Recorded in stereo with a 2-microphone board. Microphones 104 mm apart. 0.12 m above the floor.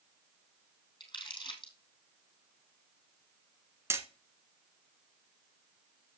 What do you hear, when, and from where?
1.0 s crumpling: 45° left (ahead or behind), 3 m
3.9 s hammering: 25° right (ahead or behind), 1.1 m